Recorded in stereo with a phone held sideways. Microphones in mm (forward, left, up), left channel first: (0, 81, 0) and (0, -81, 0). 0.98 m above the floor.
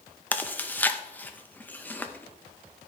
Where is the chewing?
10° left (ahead or behind), 0.7 m.